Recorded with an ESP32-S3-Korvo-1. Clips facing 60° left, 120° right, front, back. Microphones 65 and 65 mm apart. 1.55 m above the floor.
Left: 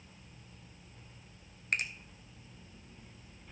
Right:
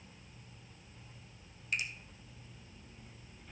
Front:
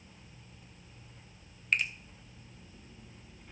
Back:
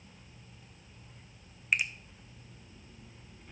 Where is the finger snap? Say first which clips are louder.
Left 3 dB, even; 100° left, 0.6 m.